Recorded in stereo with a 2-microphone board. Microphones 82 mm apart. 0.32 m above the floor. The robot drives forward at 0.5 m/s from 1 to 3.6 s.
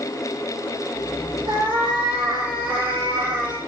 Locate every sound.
1.5 s a cat meowing: 85° right, 4 m; by 3.6 s 80° right, 4 m